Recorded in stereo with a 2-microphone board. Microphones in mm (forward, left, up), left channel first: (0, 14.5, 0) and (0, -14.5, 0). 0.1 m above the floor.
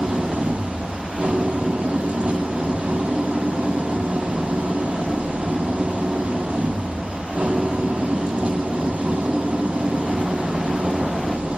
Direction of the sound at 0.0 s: 40° right (ahead or behind).